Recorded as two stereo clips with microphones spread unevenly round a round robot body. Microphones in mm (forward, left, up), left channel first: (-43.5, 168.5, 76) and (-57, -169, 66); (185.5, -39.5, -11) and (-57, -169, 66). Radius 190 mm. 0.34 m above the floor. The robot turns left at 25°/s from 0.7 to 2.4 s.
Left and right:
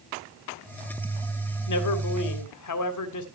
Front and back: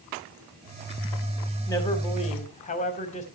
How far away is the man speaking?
About 2.5 m.